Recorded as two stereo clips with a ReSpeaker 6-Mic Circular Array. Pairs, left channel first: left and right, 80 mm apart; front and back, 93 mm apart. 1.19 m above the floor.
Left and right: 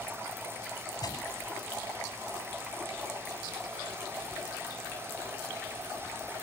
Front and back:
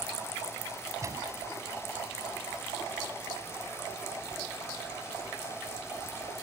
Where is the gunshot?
125° left.